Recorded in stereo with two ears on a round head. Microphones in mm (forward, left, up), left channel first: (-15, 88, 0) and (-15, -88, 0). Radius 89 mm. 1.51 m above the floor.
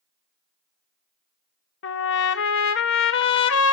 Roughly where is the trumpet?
Left.